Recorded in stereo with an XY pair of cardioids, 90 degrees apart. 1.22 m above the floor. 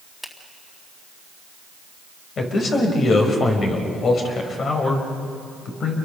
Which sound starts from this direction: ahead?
A finger snap, at 0.2 s.